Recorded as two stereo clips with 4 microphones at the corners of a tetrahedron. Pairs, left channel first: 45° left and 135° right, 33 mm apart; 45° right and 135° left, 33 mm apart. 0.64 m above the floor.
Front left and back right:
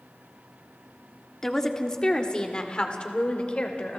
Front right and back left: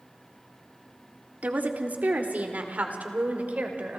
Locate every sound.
1.4 s a woman speaking: 120° left, 1.7 m; by 4.0 s 95° left, 3 m